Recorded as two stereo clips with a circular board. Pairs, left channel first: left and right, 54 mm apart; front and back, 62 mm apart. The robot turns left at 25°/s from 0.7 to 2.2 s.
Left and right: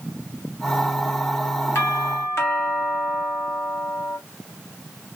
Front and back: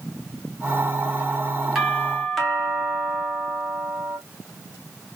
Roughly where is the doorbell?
Left.